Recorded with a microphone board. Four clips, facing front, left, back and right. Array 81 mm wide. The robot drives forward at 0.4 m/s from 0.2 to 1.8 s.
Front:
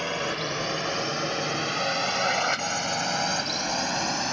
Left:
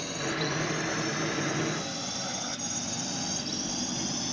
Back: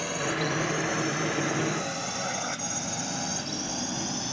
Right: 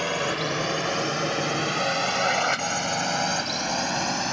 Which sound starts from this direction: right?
A drone, at 0.0 s.